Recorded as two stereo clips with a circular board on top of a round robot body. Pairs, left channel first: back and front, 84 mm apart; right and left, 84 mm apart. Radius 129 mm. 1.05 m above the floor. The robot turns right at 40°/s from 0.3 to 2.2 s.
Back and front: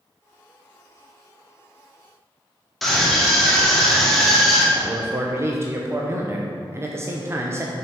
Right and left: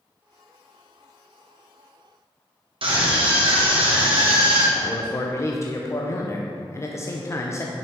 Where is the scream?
90° left, 2.5 m.